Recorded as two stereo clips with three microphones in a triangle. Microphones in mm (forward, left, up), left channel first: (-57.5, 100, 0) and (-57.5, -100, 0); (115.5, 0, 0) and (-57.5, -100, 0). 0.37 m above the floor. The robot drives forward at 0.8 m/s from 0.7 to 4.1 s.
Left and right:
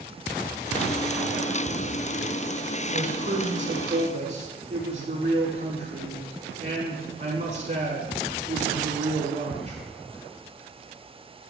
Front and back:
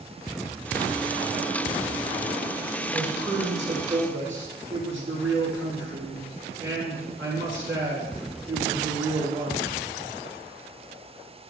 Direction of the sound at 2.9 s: 135° right.